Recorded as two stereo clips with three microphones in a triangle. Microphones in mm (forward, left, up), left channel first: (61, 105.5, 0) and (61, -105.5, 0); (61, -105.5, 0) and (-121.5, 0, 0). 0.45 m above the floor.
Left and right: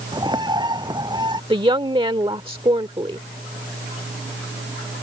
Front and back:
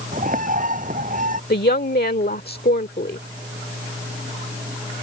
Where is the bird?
160° right.